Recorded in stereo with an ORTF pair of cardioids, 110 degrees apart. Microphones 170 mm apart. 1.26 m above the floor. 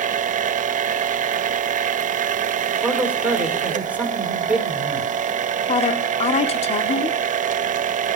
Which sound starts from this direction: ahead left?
A woman speaking, at 5.7 s.